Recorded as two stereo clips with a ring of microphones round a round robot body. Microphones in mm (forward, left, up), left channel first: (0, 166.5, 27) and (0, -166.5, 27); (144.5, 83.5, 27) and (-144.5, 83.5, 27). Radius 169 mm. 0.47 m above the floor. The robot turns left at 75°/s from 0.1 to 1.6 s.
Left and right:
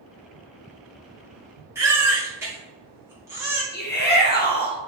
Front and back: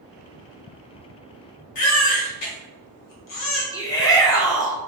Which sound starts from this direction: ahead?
A baby crying, at 1.8 s.